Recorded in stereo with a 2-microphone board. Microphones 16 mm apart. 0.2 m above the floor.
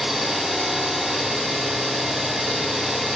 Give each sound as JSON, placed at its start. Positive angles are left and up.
{"t": 0.0, "sound": "an engine running", "side_deg": -55, "distance_m": 2.5}